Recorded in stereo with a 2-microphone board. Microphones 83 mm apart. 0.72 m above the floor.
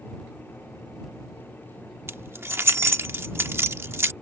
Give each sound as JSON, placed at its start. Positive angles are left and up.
{"t": 2.1, "sound": "keys jangling", "side_deg": -30}